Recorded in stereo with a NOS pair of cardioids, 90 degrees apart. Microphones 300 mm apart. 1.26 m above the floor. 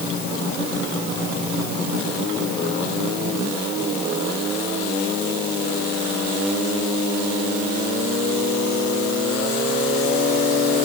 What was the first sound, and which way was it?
Only background noise.